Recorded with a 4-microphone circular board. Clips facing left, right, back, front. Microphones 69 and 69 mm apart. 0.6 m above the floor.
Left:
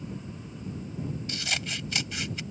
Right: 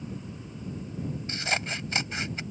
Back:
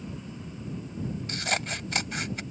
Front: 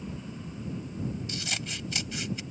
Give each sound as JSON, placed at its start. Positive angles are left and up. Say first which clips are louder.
{"t": 1.3, "sound": "scissors", "louder": "right 3 dB, back 6 dB", "azimuth_deg": -145}